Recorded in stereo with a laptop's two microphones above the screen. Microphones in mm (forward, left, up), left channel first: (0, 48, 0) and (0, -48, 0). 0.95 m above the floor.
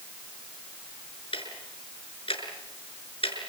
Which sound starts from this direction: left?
Ticking, at 1.3 s.